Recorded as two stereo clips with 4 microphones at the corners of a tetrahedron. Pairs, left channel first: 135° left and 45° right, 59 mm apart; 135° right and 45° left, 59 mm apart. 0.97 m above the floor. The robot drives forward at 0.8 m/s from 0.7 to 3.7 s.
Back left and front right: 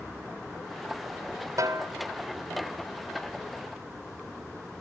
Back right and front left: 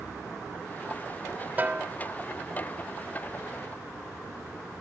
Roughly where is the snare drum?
Ahead.